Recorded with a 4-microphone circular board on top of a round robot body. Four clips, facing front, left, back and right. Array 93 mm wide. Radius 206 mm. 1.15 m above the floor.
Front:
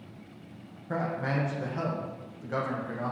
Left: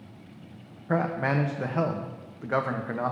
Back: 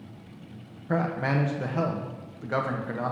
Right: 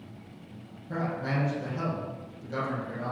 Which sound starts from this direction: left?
A man speaking, at 0.9 s.